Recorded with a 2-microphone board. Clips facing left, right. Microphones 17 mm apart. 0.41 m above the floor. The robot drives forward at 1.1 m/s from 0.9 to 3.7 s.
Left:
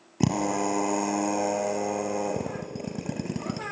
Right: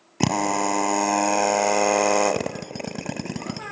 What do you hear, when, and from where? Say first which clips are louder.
0.2 s a drill: right 4 dB; 30° right (ahead or behind), 1.7 m; by 3.6 s 25° right (ahead or behind), 1.8 m